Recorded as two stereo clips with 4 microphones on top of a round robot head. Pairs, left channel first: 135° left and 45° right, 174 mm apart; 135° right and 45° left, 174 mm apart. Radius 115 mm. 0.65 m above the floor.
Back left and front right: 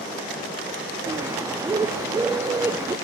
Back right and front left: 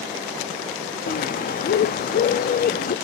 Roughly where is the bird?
Behind right.